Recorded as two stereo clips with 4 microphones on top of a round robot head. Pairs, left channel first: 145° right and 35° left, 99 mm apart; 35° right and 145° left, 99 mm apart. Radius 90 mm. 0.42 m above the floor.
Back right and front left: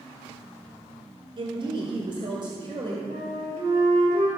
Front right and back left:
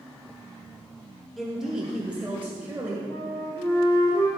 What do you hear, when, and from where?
1.4 s a woman speaking: 55° left, 1.8 m; by 3.0 s 75° left, 2.5 m
3.1 s a flute: 35° left, 5 m